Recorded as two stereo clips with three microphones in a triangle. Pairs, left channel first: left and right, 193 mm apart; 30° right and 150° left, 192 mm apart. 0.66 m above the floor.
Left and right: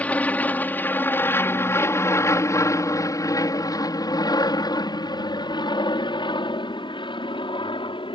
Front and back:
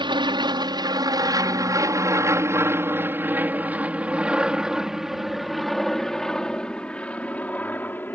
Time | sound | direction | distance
0.0 | an aircraft | 160° left | ?